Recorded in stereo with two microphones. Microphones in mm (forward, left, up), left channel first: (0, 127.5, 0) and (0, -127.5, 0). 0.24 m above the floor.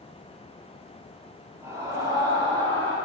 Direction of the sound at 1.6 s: 10° right (ahead or behind).